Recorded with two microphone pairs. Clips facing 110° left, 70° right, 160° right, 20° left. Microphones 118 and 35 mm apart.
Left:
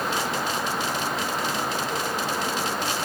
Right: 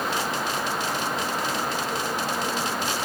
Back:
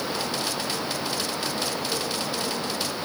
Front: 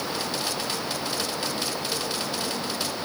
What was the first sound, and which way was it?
Only background noise.